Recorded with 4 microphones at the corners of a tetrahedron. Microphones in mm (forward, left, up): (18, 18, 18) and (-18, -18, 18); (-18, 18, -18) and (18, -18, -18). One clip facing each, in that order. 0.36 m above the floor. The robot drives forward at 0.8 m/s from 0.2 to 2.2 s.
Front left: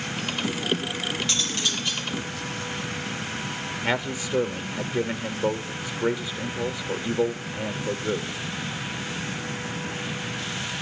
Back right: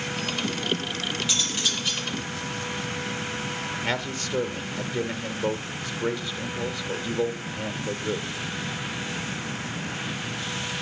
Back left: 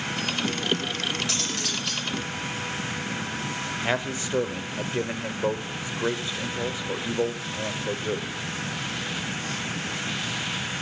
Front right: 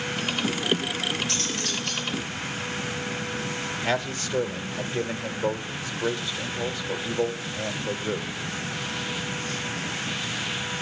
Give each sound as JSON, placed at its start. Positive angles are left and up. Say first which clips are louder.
{"t": 1.3, "sound": "cutlery clinking", "louder": "even, even", "azimuth_deg": 140, "distance_m": 6.5}
{"t": 3.8, "sound": "a man speaking", "louder": "front left 5 dB, even", "azimuth_deg": 105, "distance_m": 0.8}